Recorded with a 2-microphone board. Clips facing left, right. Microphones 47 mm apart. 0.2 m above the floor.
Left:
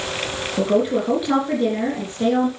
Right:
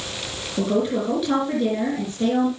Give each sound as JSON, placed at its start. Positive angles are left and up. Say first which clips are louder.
{"t": 0.6, "sound": "a woman speaking", "louder": "left 3 dB", "side_deg": 15, "distance_m": 3.5}